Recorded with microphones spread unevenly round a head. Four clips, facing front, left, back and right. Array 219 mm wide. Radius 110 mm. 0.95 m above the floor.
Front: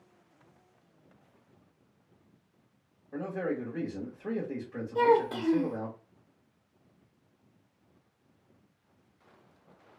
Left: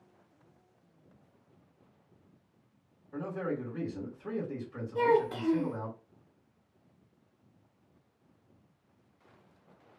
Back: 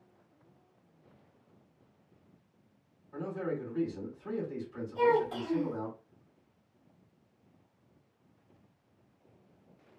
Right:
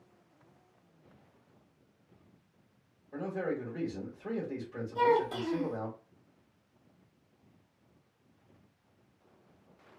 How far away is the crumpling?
No crumpling in this recording.